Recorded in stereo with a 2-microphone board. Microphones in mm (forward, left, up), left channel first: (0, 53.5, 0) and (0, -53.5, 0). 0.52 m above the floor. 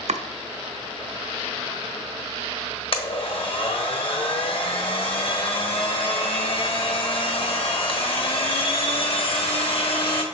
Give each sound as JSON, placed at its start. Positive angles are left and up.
{"t": 0.1, "sound": "chopping", "side_deg": -80, "distance_m": 0.6}
{"t": 2.9, "sound": "a blender", "side_deg": 55, "distance_m": 1.1}